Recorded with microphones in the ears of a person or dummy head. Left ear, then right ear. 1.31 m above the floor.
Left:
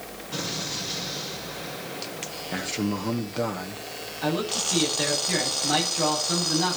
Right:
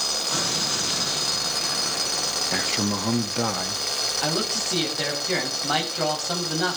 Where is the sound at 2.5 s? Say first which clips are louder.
Right 5 dB; 25° right (ahead or behind), 1.2 m.